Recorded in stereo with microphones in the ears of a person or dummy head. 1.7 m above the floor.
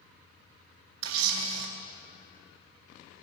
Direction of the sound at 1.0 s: 85° right.